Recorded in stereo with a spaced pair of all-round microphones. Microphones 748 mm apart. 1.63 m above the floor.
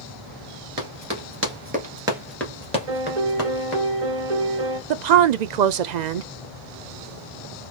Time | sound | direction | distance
0.8 | running footsteps | 25° right (ahead or behind) | 1.8 m
2.9 | a piano | 45° right (ahead or behind) | 1.2 m
4.9 | a woman speaking | 70° right (ahead or behind) | 0.6 m